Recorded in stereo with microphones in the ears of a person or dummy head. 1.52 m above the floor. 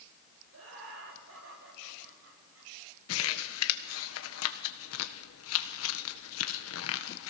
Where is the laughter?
80° right, 5.5 m; by 2.7 s 85° right, 6.5 m.